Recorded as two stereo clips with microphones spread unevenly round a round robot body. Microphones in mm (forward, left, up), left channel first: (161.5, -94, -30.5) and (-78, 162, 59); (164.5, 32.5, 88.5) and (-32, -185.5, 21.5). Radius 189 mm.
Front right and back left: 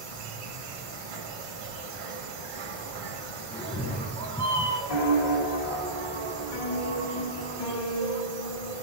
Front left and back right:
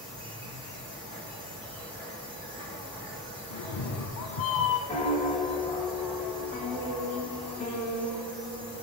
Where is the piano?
25° right, 3.5 m.